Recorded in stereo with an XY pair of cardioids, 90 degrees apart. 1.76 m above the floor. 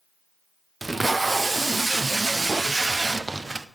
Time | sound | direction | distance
0.8 | tape being pulled | 20° right | 0.5 m